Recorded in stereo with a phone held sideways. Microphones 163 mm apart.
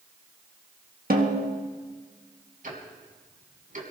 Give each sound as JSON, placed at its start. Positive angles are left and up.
{"t": 1.1, "sound": "a snare drum", "side_deg": -65, "distance_m": 1.6}
{"t": 2.6, "sound": "ticking", "side_deg": -55, "distance_m": 2.5}